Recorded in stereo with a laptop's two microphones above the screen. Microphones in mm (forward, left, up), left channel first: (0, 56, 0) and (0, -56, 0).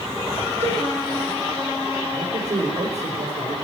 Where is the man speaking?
70° right (ahead or behind), 4 m.